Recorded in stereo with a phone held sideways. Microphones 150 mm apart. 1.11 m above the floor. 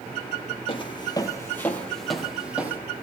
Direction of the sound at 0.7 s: 40° left (ahead or behind).